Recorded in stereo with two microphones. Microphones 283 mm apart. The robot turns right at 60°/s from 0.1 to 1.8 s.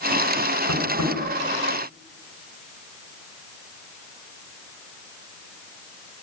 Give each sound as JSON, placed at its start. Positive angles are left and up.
{"t": 0.7, "sound": "tapping", "side_deg": 80, "distance_m": 5.0}